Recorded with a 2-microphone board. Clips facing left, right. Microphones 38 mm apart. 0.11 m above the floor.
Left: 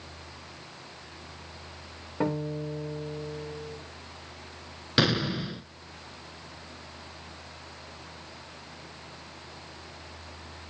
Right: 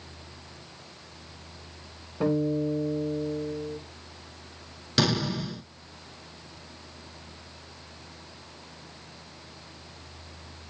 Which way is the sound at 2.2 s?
75° left (ahead or behind).